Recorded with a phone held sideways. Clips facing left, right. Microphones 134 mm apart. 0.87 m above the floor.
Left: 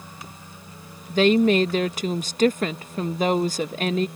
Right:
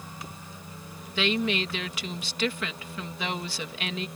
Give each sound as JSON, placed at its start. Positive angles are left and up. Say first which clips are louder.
{"t": 1.1, "sound": "a woman speaking", "louder": "left 10 dB", "side_deg": 45}